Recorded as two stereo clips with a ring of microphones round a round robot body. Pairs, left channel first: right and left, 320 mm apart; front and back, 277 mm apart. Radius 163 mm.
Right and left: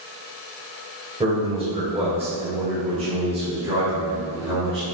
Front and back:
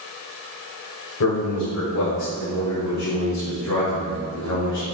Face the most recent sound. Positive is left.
turn(degrees=20)